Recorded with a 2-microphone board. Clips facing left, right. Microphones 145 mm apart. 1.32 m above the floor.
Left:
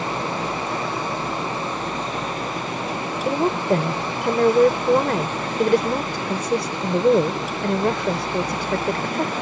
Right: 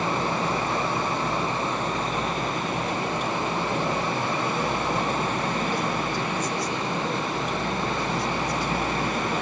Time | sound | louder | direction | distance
3.2 | a woman speaking | left 7 dB | 75° left (ahead or behind) | ?